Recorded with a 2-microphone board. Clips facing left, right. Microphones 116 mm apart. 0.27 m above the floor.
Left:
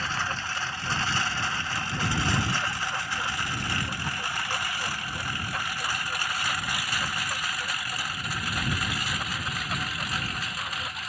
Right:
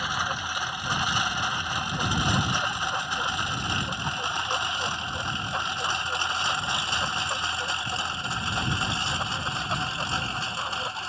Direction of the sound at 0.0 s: 15° right (ahead or behind).